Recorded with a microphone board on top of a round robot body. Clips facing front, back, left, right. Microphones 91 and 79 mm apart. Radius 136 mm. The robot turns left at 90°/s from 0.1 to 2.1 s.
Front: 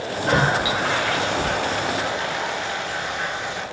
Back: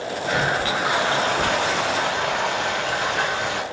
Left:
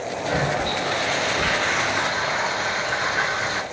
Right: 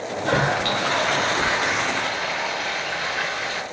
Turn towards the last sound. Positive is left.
turn(degrees=150)